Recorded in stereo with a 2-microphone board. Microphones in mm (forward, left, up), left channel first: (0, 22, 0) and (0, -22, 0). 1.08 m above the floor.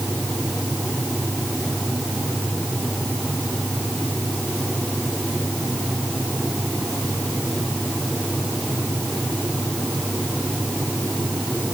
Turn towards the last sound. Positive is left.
No sound to turn to.